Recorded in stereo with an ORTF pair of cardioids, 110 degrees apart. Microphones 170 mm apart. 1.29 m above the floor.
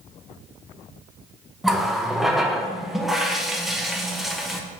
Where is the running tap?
Straight ahead, 0.8 m.